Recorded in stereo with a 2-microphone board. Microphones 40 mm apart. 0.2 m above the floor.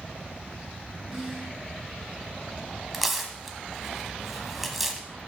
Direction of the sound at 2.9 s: 5° right (ahead or behind).